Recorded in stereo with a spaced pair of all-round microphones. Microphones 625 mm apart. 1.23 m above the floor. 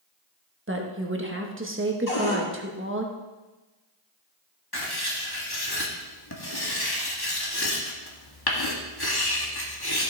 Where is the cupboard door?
65° left (ahead or behind), 2.5 m.